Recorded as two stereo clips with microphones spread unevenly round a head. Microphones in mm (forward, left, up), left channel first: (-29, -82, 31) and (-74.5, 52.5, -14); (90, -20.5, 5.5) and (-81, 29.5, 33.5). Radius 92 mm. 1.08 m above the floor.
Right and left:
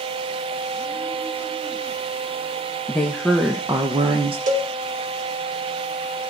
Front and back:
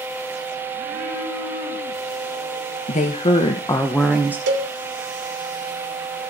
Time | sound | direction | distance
2.9 | a woman speaking | 20° left | 1.1 m
4.5 | a cowbell | 135° left | 2.5 m